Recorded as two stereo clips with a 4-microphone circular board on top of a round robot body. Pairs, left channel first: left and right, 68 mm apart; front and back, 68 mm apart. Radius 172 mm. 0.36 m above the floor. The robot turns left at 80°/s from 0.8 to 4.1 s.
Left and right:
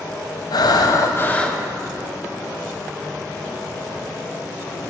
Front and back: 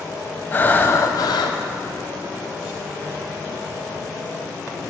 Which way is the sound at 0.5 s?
65° left.